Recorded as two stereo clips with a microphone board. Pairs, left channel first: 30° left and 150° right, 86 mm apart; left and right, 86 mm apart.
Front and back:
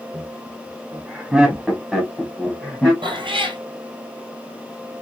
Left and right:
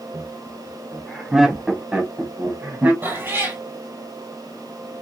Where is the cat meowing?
150° right, 1.2 m.